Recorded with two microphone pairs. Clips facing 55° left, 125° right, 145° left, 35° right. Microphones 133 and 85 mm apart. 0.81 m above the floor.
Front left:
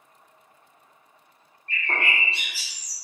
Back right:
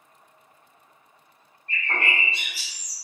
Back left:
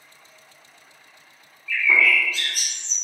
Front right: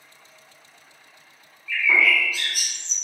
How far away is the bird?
About 1.1 m.